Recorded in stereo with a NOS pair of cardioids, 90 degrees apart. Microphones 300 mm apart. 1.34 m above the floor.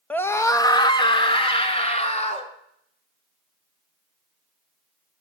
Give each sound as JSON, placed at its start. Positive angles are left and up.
{"t": 0.1, "sound": "a scream", "azimuth_deg": 5, "distance_m": 1.4}